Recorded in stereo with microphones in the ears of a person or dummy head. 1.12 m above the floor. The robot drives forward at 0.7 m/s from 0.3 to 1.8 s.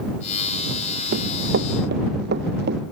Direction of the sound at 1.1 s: 55° right (ahead or behind).